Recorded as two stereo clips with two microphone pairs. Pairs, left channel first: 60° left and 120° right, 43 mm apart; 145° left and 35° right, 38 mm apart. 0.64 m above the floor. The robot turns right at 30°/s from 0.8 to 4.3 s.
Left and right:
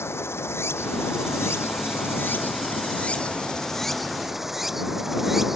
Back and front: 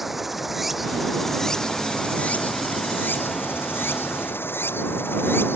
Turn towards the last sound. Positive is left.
turn(degrees=155)